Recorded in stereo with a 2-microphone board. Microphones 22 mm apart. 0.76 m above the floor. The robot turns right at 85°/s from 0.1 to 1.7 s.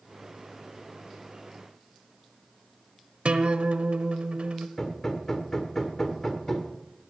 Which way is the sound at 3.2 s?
60° right (ahead or behind).